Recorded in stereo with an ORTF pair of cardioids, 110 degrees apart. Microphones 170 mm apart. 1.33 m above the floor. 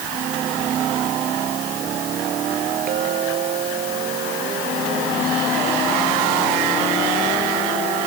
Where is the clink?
55° right.